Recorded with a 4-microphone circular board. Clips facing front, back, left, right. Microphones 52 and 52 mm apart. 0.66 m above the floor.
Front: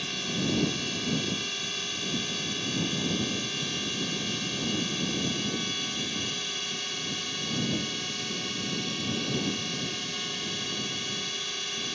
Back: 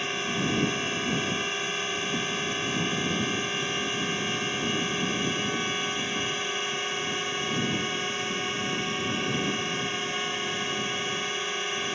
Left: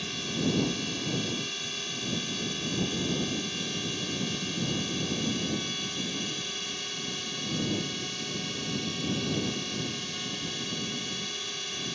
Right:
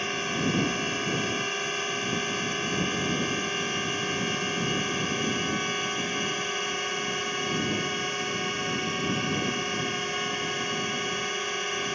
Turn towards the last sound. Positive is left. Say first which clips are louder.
# back 3 dB, right 3 dB
turn(degrees=-125)